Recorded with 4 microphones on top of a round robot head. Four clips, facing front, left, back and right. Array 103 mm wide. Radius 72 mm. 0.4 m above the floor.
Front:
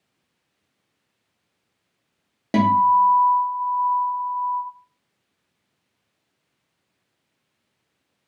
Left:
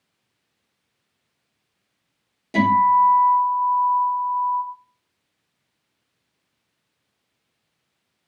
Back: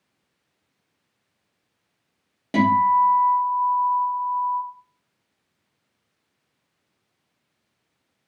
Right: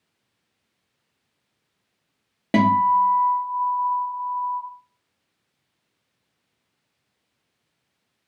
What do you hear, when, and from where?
2.5 s a guitar: 60° right, 0.5 m